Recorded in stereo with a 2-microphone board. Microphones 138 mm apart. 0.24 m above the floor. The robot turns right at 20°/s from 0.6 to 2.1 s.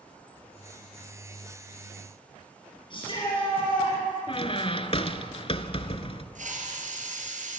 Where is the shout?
40° left (ahead or behind), 6 m.